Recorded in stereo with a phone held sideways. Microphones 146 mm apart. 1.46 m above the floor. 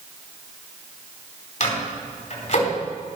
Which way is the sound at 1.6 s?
55° left (ahead or behind).